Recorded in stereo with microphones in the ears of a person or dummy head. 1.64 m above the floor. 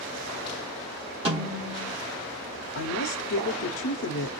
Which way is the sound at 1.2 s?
35° right (ahead or behind).